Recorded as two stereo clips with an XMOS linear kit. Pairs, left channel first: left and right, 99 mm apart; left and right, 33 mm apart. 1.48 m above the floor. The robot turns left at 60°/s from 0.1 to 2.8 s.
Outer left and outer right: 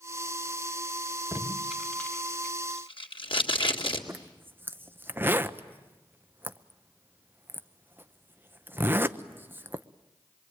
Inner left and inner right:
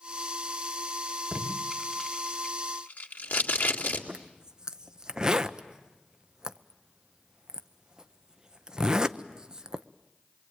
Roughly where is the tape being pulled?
Right.